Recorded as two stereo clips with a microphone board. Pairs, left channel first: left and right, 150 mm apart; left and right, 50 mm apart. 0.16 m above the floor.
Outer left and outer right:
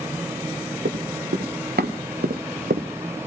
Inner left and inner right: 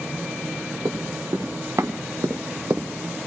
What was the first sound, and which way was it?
Running footsteps, 85° right.